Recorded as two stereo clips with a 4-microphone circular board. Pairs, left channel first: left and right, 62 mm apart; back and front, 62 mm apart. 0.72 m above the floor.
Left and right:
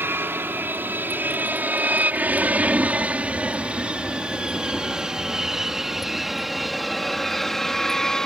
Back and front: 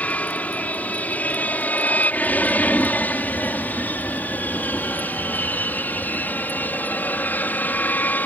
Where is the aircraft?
125° right; by 8.3 s 160° left.